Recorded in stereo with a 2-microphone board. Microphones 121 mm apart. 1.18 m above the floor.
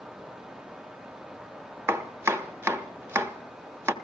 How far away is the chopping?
About 0.8 m.